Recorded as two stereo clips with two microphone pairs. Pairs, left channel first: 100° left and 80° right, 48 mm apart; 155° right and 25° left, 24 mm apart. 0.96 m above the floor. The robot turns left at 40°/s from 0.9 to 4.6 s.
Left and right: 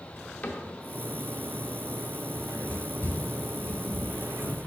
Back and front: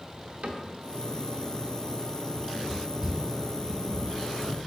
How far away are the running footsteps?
About 0.9 m.